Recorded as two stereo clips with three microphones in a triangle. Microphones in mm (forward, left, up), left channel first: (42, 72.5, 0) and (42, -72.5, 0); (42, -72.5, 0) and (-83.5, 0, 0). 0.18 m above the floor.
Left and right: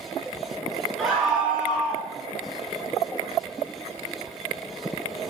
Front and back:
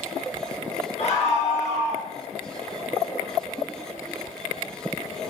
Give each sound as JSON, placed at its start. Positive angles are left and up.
{"t": 1.0, "sound": "a scream", "azimuth_deg": 0, "distance_m": 2.0}